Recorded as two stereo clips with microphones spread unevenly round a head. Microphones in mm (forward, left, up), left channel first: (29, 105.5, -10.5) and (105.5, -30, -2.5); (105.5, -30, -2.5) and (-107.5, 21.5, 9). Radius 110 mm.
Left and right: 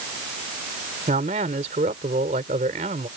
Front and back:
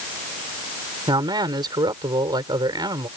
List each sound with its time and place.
1.1 s a man speaking: 120° right